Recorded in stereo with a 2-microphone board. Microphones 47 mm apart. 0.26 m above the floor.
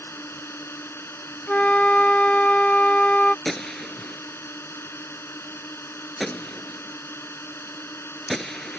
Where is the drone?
65° left (ahead or behind).